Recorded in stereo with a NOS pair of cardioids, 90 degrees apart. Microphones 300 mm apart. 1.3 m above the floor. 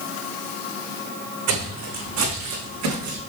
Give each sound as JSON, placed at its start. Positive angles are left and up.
{"t": 1.5, "sound": "footsteps", "azimuth_deg": -60, "distance_m": 4.5}